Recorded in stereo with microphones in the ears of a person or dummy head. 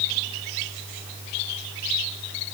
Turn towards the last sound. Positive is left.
No sound to turn to.